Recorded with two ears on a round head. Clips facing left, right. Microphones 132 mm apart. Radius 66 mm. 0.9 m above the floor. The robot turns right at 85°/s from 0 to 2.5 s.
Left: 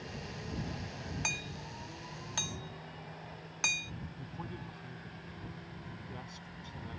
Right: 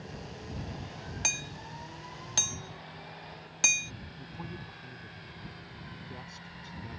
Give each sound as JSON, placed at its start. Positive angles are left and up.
{"t": 1.2, "sound": "hammering", "side_deg": -35}
{"t": 4.2, "sound": "a man speaking", "side_deg": -5}